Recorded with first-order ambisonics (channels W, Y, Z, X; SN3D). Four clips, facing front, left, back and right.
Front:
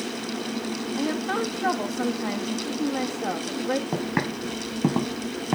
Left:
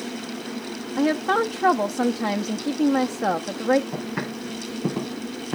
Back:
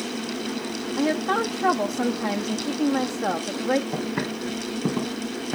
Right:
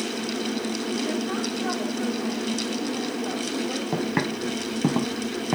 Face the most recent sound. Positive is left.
turn(degrees=-45)